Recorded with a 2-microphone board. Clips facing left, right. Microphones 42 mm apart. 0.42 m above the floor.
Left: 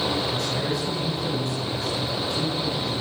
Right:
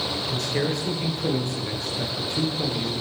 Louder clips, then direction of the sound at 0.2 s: Even; 70° right (ahead or behind).